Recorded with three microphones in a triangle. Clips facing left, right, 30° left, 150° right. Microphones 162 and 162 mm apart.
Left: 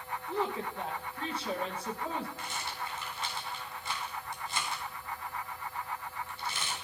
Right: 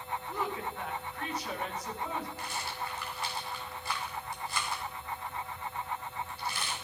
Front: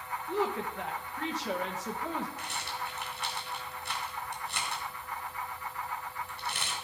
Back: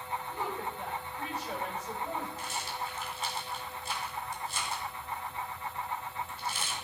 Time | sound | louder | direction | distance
0.3 | a woman speaking | left 4 dB, front 9 dB | 30° left | 1.4 m
2.4 | a rattle | right 1 dB, back 1 dB | 20° left | 2.5 m